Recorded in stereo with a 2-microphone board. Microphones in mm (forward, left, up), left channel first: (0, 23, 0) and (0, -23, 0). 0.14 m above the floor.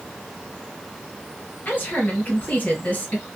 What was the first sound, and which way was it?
A woman speaking, 40° left (ahead or behind).